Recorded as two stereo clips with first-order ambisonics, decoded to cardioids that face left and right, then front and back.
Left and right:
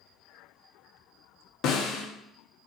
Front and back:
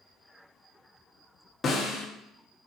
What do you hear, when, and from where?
1.6 s a snare drum: 65° left, 1.2 m